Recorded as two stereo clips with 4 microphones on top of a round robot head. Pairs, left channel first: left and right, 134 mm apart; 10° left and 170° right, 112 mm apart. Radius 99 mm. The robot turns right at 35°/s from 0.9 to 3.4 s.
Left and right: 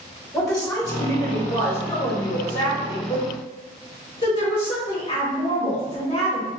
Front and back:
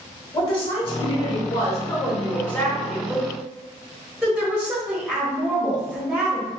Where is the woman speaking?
10° left, 1.6 m; by 6.5 s 100° left, 1.6 m.